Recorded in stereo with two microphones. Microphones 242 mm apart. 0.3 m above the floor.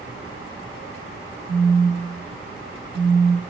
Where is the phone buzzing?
55° right (ahead or behind), 2.5 m.